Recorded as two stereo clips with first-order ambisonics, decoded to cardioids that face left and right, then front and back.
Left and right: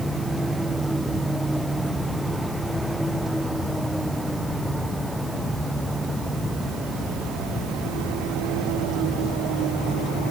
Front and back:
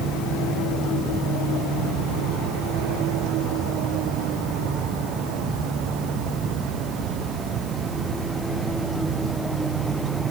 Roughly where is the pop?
No pop in this recording.